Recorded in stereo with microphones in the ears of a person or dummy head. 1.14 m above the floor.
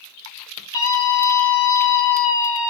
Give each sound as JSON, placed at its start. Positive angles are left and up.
{"t": 0.7, "sound": "a scream", "side_deg": 20, "distance_m": 2.0}